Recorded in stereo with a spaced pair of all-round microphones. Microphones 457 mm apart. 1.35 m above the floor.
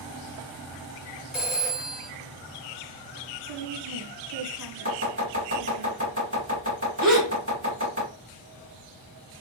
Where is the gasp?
40° right (ahead or behind), 2 m.